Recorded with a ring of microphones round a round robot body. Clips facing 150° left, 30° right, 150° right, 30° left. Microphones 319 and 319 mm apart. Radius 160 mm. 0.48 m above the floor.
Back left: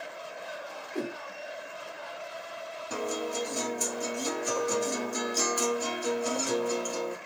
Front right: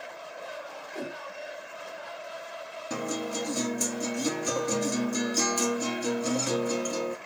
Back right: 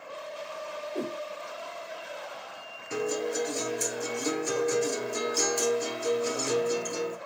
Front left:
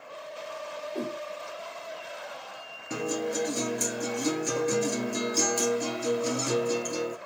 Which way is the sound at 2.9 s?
20° right.